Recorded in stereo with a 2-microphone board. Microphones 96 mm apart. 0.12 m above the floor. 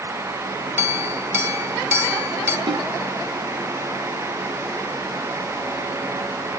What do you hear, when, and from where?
0.8 s a clink: 25° right (ahead or behind), 2.5 m
2.7 s a snare drum: 50° right (ahead or behind), 5.5 m